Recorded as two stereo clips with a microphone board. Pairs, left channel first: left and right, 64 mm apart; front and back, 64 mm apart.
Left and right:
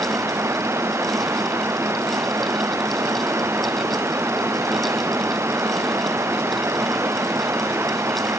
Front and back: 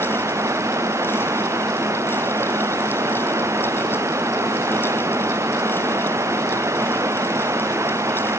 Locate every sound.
0.0 s running water: 140° right